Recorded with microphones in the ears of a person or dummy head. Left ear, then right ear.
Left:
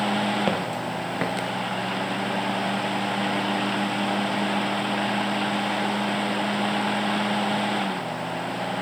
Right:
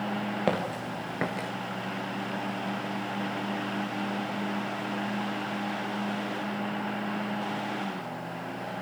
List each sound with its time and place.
0.5 s footsteps: 5° left (ahead or behind), 1.7 m; by 1.5 s 25° left (ahead or behind), 1.8 m